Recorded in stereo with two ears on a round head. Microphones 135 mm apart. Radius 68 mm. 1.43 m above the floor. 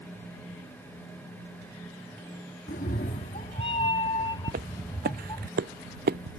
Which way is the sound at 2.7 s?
60° left (ahead or behind).